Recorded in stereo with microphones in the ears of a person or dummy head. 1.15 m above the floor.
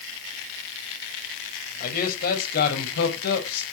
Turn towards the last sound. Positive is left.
turn(degrees=60)  # may be behind; listen again after turning